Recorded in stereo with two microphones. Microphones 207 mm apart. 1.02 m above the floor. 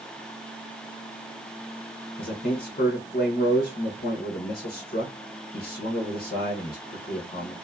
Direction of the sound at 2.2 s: 45° left (ahead or behind).